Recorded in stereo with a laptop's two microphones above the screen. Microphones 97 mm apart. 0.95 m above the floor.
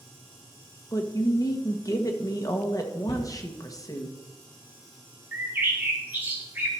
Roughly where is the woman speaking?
Left.